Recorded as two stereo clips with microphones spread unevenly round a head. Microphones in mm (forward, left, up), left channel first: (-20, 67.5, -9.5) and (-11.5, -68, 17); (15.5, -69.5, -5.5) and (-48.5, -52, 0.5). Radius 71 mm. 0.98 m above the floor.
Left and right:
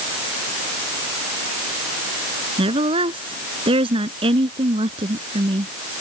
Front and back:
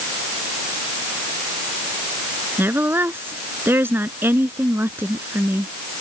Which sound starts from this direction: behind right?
A woman speaking, at 2.6 s.